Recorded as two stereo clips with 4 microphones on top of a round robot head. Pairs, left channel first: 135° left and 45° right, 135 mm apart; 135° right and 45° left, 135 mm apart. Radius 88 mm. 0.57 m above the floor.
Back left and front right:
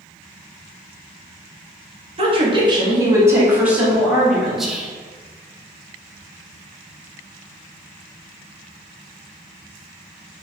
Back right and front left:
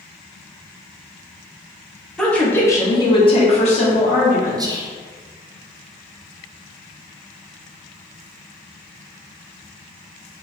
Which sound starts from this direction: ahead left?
Whispering, at 4.6 s.